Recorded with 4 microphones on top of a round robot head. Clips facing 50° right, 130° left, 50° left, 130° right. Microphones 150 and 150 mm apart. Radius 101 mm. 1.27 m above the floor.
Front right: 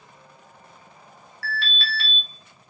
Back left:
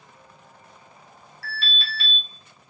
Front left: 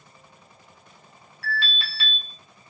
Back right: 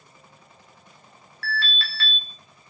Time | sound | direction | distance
1.4 | an alarm | 20° right | 1.1 m